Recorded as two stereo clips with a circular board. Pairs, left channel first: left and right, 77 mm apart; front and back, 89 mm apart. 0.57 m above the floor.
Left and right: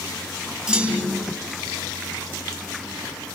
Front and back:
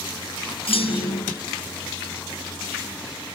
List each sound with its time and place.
0.7 s a clunk: 15° right, 8 m